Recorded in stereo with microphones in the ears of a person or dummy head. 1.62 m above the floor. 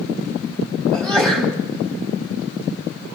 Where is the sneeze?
5° left (ahead or behind), 3.5 m.